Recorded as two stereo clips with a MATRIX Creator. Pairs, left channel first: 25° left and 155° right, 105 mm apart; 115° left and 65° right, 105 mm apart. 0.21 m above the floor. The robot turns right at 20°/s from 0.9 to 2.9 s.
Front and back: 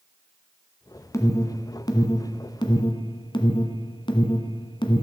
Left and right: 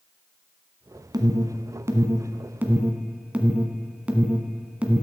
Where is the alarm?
30° right, 1.7 m; by 5.0 s 5° left, 1.7 m.